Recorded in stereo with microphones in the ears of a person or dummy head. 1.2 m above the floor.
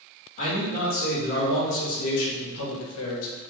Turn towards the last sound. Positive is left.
turn(degrees=70)  # may be behind; listen again after turning